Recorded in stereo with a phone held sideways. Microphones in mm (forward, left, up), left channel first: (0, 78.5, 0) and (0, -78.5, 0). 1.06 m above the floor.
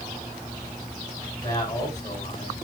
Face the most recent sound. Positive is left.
turn(degrees=25)  # may be behind; listen again after turning